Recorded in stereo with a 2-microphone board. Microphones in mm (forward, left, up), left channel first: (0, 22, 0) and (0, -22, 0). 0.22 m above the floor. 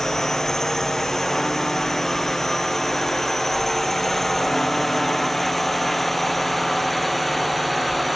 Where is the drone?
10° left (ahead or behind); by 8.2 s centre (ahead or behind).